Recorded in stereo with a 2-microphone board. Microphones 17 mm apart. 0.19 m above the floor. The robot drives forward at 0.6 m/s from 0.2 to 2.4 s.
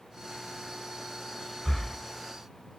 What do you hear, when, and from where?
1.6 s breathing: 25° left (ahead or behind), 0.8 m; by 2.0 s 30° left (ahead or behind), 0.7 m